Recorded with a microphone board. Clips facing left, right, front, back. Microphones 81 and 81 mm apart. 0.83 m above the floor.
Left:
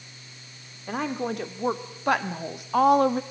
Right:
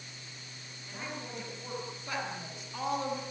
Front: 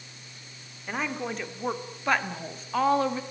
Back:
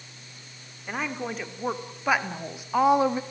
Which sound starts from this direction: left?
A woman speaking, at 0.9 s.